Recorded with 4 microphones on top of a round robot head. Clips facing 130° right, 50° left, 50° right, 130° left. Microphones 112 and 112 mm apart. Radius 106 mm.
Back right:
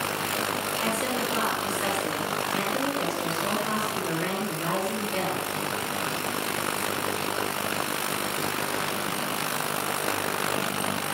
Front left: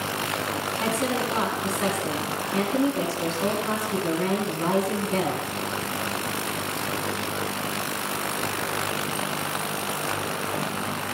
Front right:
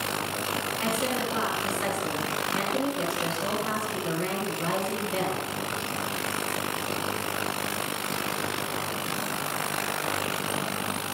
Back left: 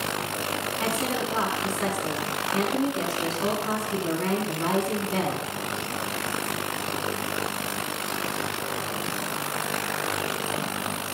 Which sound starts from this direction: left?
A woman speaking, at 0.8 s.